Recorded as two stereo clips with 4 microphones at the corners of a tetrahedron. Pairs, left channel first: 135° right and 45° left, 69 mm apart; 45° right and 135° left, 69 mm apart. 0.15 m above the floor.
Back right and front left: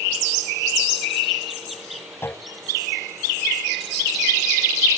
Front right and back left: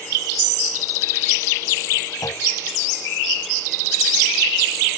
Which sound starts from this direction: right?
A clunk, at 2.2 s.